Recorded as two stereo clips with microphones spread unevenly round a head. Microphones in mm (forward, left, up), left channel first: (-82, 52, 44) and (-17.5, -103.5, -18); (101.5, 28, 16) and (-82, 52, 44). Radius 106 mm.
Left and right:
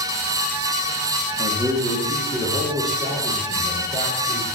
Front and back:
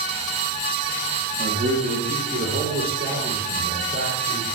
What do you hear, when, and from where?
1.4 s a man speaking: 135° right, 1.9 m; by 4.4 s 125° right, 3.5 m